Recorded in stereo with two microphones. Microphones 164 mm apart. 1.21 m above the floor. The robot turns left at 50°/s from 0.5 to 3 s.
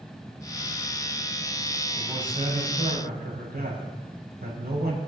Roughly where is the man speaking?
Ahead right.